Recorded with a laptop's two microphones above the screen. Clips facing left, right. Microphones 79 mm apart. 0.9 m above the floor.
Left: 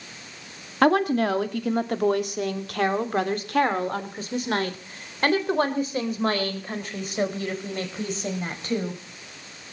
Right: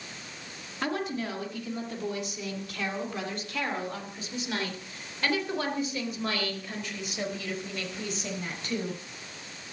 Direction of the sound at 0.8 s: 70° left (ahead or behind).